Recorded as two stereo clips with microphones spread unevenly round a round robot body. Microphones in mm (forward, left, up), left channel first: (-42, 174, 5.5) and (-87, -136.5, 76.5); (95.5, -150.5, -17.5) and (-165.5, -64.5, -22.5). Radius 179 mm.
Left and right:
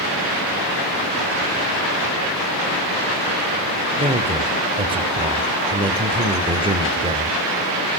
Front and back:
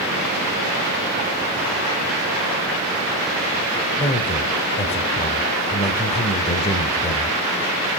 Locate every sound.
4.0 s a man speaking: 15° right, 0.9 m